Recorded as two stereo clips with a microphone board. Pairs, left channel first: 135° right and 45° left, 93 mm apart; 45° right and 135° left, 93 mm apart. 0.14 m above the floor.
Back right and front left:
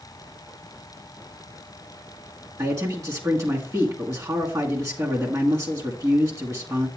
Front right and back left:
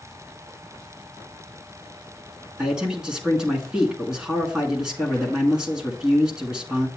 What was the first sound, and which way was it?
A man speaking, 60° left.